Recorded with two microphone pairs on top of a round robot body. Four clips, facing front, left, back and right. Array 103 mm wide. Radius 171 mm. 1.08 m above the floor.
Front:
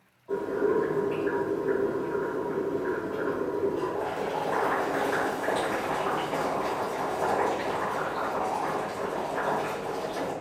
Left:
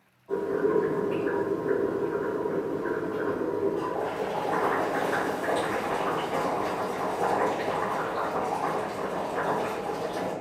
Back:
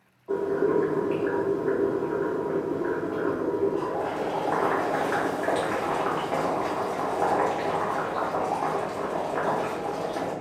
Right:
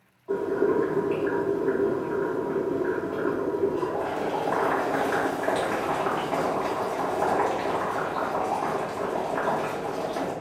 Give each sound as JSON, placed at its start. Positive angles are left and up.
{"t": 0.3, "sound": "boiling", "azimuth_deg": -145, "distance_m": 1.3}